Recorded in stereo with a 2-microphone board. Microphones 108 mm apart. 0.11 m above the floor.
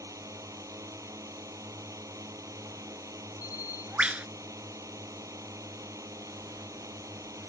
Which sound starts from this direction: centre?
A bird, at 3.4 s.